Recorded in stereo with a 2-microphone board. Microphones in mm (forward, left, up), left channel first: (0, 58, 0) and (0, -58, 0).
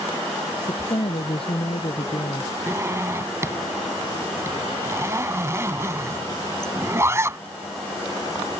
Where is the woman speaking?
55° left (ahead or behind).